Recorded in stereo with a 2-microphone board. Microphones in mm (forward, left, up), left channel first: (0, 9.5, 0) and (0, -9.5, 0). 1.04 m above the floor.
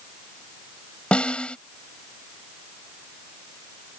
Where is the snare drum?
75° left (ahead or behind).